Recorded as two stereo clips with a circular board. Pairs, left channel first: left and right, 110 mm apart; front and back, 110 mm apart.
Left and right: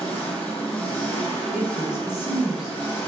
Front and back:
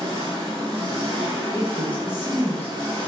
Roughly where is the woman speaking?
Ahead.